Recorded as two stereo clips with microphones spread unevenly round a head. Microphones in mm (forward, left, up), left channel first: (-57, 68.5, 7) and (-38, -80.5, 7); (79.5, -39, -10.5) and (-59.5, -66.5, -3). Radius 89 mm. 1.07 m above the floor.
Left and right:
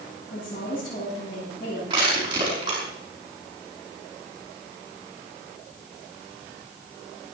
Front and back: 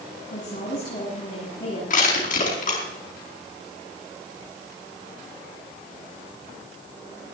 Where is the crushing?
15° right, 5 m.